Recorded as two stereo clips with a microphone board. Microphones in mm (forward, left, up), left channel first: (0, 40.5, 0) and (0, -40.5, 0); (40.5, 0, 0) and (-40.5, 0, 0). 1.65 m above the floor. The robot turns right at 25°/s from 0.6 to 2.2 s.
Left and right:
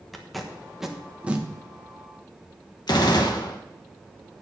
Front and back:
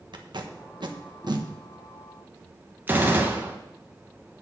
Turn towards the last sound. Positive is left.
turn(degrees=115)